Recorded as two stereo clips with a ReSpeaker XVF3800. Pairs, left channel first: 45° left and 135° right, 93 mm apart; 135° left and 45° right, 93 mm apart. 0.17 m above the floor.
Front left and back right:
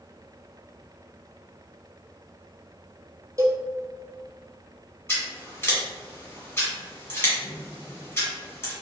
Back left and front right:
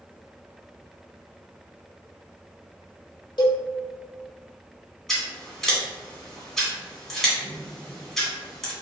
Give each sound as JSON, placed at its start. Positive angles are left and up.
{"t": 3.4, "sound": "a cowbell", "azimuth_deg": 170, "distance_m": 1.0}
{"t": 5.1, "sound": "scissors", "azimuth_deg": 50, "distance_m": 1.8}